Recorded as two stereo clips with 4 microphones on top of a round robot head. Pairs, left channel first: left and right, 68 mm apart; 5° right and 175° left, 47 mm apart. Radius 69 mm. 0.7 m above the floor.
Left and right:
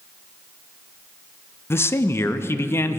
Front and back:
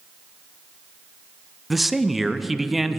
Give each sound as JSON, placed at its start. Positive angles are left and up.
{"t": 1.7, "sound": "a man speaking", "azimuth_deg": 85, "distance_m": 0.6}